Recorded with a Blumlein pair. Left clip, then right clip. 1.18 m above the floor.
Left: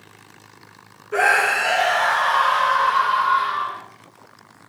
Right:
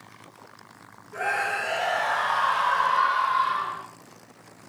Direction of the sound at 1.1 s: 50° left.